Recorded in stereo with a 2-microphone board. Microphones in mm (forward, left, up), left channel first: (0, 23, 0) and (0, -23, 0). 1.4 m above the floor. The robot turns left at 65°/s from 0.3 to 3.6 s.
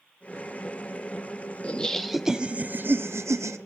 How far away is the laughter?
About 0.7 m.